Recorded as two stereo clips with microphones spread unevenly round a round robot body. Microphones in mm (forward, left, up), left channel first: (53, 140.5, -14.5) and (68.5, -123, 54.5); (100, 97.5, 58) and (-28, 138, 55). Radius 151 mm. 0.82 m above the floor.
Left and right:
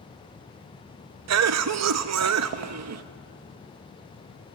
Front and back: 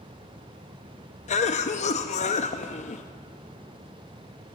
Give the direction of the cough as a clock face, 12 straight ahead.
2 o'clock.